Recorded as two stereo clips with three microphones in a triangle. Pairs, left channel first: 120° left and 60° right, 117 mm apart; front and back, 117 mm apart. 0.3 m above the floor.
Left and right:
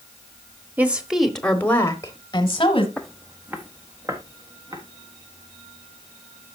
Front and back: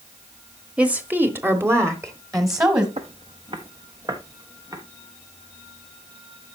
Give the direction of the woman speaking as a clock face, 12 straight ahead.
4 o'clock.